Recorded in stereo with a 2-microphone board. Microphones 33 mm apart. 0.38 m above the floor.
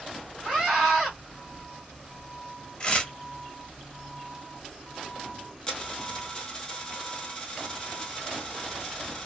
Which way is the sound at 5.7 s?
25° left (ahead or behind).